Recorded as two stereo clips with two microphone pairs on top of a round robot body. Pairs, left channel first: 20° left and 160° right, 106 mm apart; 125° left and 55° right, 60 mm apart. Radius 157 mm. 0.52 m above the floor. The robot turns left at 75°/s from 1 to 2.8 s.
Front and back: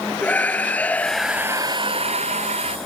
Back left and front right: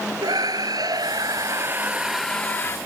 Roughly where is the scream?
Ahead right.